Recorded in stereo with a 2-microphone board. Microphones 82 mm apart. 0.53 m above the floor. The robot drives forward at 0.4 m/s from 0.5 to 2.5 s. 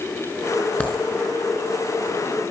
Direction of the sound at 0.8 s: 25° left (ahead or behind).